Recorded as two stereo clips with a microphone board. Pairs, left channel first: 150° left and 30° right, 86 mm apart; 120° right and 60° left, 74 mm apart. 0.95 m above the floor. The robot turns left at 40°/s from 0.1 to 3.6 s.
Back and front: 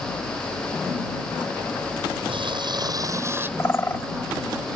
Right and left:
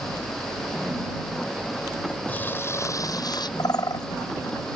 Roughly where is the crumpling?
Ahead right.